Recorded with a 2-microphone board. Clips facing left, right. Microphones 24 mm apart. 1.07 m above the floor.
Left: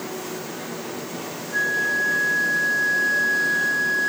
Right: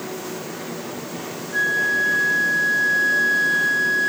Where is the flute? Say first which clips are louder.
Right 2 dB; 25° left (ahead or behind), 1.5 m.